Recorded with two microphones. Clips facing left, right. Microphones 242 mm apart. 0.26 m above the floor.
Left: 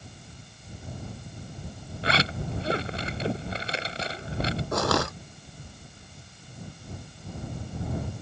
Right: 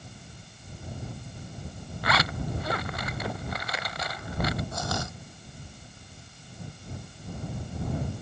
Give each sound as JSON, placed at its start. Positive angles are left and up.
{"t": 2.0, "sound": "a zipper", "side_deg": 30}
{"t": 4.7, "sound": "crushing", "side_deg": 75}